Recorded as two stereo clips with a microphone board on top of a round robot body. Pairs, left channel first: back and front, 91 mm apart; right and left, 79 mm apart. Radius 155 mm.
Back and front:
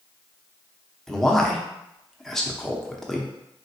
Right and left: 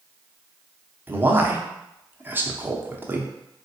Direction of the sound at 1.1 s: 100° left.